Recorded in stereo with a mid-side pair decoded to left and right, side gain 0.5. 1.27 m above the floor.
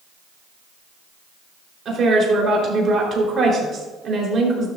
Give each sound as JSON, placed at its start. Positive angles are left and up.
{"t": 1.9, "sound": "a woman speaking", "azimuth_deg": -45, "distance_m": 4.0}